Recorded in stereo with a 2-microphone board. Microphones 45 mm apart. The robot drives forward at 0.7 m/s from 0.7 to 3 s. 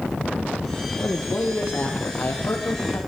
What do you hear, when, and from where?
0.9 s a man speaking: 45° left (ahead or behind), 9 m; by 3.0 s 55° left (ahead or behind), 8 m